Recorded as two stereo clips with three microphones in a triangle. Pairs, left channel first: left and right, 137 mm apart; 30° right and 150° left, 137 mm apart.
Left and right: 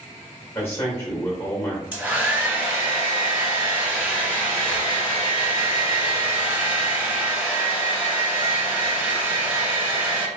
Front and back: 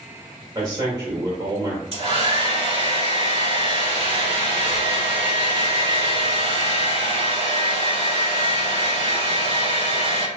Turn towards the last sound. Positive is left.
turn(degrees=-165)